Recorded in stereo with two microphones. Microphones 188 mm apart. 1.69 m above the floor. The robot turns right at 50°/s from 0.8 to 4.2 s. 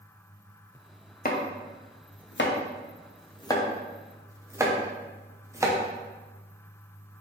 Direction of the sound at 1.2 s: 45° left (ahead or behind).